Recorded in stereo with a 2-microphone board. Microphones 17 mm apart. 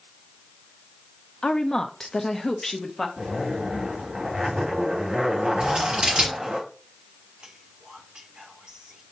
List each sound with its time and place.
1.4 s a woman speaking: 50° left (ahead or behind), 0.8 m; by 3.1 s 10° left (ahead or behind), 1.3 m
3.2 s a zipper: 85° right, 2.5 m
5.6 s scissors: 85° right, 4 m
7.4 s whispering: 65° right (ahead or behind), 1.8 m